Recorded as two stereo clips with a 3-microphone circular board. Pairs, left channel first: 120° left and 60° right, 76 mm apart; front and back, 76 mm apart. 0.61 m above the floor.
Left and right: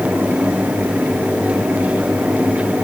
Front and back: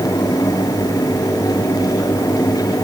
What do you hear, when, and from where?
Only background noise.